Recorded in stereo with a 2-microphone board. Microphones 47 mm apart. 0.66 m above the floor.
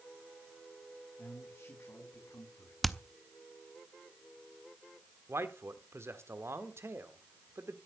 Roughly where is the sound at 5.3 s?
Right.